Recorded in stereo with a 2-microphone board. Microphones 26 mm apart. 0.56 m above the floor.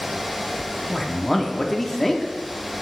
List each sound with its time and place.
0.9 s a man speaking: 10° left (ahead or behind), 0.9 m